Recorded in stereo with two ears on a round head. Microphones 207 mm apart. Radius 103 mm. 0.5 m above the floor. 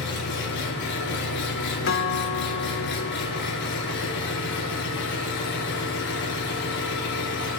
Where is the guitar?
55° left (ahead or behind), 0.8 m.